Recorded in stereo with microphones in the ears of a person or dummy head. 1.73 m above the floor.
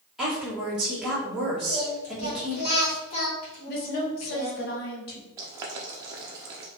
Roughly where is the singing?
Left.